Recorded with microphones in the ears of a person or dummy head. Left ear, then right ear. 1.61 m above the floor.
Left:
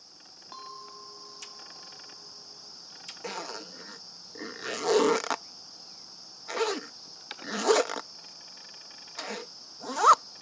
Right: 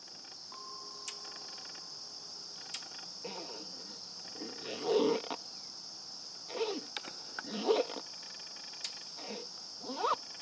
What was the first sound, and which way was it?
A clink, 60° left (ahead or behind).